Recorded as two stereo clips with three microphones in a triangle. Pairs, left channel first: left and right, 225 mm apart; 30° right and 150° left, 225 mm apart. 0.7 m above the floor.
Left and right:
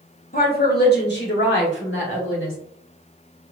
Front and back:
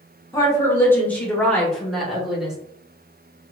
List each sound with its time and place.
0.3 s a woman speaking: 40° left, 1.5 m; by 2.5 s 60° left, 2.5 m